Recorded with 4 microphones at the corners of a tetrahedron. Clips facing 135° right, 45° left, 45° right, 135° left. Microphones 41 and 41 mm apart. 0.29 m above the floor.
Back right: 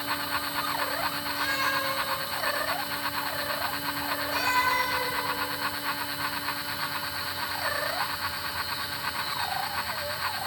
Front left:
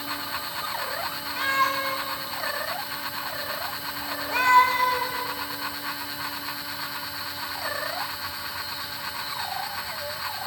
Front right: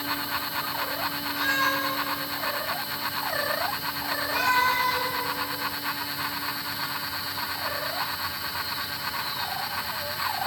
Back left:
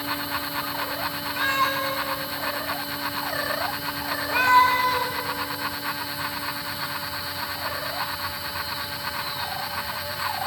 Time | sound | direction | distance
1.4 | a cat meowing | 85° left | 1.7 m